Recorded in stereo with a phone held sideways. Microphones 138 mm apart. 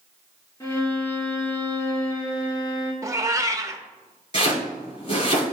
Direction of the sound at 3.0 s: 20° right (ahead or behind).